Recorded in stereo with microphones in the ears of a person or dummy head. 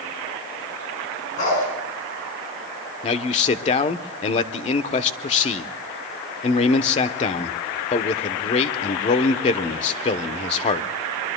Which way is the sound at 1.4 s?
45° left (ahead or behind).